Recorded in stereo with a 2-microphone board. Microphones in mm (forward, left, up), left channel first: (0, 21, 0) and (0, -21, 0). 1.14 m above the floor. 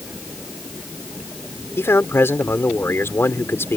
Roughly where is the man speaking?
Left.